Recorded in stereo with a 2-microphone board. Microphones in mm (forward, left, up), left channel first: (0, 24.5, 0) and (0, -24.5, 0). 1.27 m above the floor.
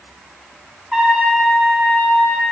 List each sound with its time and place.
0.9 s a trumpet: 20° right (ahead or behind), 1.7 m